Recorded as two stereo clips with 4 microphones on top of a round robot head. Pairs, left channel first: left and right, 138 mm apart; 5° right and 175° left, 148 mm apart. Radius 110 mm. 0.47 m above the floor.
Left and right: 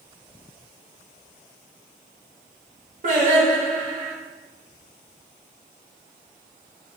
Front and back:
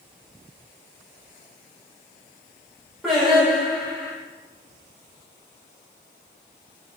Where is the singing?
100° right, 1.3 m.